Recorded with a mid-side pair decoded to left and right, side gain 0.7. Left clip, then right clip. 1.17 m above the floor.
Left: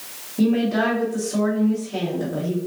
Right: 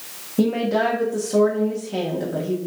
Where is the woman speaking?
30° right, 0.8 m.